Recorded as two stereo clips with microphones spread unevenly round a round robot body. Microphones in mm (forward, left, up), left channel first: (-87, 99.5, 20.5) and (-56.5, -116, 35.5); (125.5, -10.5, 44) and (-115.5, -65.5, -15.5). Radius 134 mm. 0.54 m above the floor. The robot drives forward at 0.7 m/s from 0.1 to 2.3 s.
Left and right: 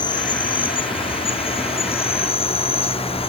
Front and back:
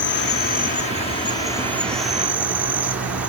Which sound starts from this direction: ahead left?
An insect, at 0.0 s.